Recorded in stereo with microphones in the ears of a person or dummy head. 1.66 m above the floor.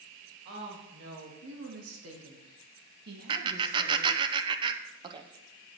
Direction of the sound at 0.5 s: 60° right (ahead or behind).